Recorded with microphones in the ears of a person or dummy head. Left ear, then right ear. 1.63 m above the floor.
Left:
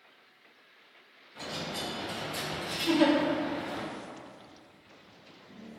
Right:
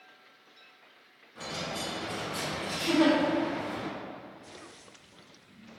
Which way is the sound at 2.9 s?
70° left (ahead or behind).